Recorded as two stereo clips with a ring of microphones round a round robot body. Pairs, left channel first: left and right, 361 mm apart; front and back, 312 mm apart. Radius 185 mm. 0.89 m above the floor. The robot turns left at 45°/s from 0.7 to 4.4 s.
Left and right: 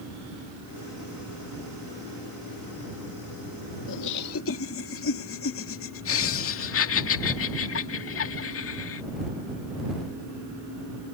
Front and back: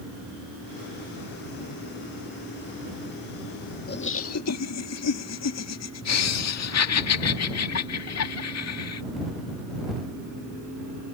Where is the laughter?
60° left; by 9.0 s 35° left.